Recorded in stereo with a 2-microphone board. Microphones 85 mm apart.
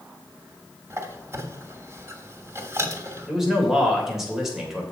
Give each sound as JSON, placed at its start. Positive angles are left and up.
{"t": 0.9, "sound": "a squeak", "side_deg": -35, "distance_m": 1.3}
{"t": 3.3, "sound": "a man speaking", "side_deg": -5, "distance_m": 2.5}